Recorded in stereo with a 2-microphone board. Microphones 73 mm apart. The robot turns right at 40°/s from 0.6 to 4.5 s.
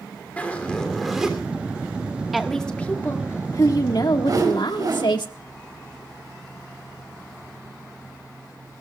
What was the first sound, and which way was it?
A zipper, 160° left.